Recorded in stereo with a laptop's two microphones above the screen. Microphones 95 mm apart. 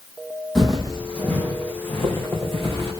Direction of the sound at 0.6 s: Centre (ahead or behind).